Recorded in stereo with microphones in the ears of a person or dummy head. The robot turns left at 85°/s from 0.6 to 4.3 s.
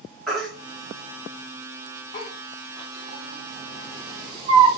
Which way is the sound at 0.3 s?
5° left (ahead or behind).